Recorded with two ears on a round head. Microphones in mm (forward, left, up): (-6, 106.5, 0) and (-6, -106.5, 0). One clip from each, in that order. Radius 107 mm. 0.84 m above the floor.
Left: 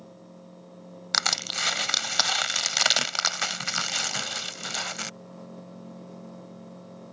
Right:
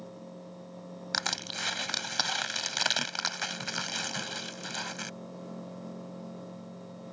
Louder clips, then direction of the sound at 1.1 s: Left 7 dB; 30° left (ahead or behind).